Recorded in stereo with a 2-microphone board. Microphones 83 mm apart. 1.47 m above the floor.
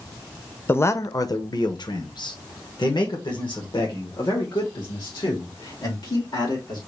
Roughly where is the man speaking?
Left.